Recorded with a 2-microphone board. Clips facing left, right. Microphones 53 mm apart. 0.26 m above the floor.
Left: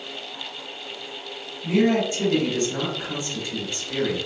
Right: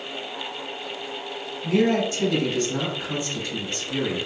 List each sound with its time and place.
1.6 s a man speaking: 25° left (ahead or behind), 1.8 m